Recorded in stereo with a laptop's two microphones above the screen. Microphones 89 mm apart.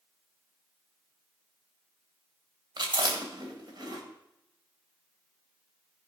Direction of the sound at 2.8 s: 55° right (ahead or behind).